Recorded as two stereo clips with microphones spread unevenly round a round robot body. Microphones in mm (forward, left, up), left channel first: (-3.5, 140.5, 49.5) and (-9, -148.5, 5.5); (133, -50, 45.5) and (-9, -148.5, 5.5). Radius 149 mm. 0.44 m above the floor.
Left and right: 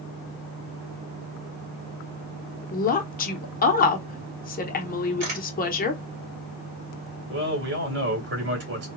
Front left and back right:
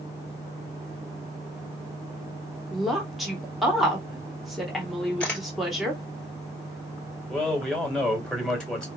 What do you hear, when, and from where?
2.7 s a woman speaking: 140° left, 1.0 m
5.2 s a camera shutter: 55° right, 2.5 m
7.3 s a man speaking: 60° right, 2.5 m